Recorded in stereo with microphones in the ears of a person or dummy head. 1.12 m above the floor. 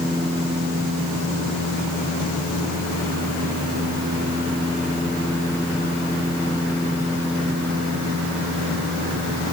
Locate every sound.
Only background noise.